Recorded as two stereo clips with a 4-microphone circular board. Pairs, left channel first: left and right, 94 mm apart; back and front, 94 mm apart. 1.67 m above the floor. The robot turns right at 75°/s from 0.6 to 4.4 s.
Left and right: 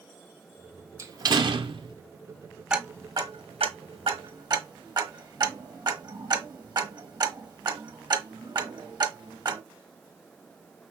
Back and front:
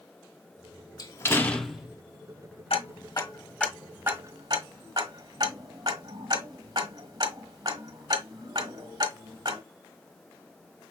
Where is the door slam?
145° right, 0.8 m; by 2.0 s 70° right, 0.8 m.